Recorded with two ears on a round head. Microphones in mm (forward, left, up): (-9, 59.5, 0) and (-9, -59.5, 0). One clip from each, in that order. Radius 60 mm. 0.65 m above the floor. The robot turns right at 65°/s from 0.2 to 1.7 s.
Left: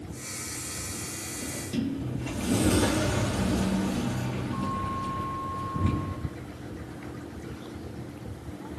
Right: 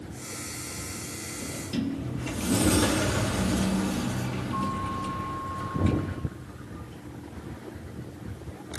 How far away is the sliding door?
About 1.0 m.